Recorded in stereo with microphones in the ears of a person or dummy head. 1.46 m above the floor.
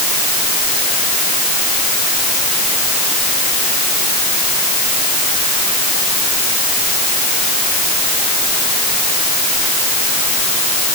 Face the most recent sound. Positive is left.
No sound to turn to.